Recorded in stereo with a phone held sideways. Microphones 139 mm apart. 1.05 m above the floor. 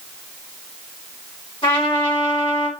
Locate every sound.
1.6 s a trumpet: 40° left (ahead or behind), 1.2 m